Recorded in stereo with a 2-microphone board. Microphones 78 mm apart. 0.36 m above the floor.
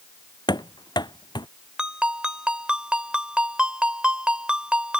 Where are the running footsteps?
65° left (ahead or behind).